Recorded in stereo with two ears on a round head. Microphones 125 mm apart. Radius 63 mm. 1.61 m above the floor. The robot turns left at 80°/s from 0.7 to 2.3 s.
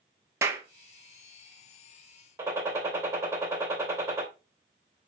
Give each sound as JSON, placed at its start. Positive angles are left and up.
{"t": 0.4, "sound": "a clap", "side_deg": -20, "distance_m": 1.1}
{"t": 2.4, "sound": "a gunshot", "side_deg": -20, "distance_m": 2.5}